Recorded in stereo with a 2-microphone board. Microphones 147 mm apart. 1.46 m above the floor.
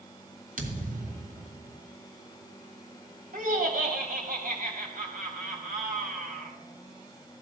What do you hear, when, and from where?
0.6 s a thud: 60° right (ahead or behind), 2.5 m
3.3 s laughter: 65° right (ahead or behind), 3.5 m